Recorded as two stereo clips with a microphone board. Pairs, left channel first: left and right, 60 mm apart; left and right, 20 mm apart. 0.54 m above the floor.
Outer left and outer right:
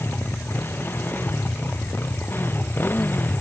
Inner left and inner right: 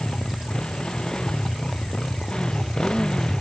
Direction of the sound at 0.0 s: 40° left (ahead or behind).